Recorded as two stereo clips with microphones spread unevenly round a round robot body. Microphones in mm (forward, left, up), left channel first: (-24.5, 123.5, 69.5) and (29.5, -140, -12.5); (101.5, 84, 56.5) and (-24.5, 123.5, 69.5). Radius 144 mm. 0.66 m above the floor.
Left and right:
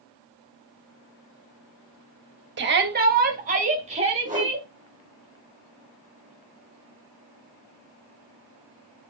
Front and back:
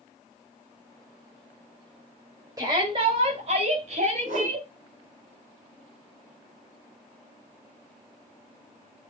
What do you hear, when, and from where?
2.6 s a shout: 125° right, 3 m; by 4.7 s 150° right, 5 m
4.2 s a whoosh: 145° right, 4.5 m